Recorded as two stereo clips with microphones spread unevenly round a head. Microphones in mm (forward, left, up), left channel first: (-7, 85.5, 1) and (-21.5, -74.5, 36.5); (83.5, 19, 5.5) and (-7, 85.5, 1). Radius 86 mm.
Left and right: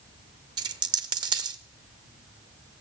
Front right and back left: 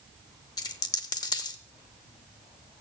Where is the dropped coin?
65° right, 0.8 m.